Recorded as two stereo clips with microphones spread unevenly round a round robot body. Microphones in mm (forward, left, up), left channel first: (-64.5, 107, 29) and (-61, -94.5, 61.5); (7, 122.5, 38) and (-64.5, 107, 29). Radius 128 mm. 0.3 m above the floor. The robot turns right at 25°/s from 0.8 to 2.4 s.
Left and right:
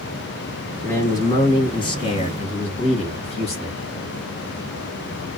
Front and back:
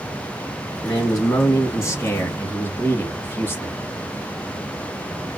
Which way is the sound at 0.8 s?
25° left.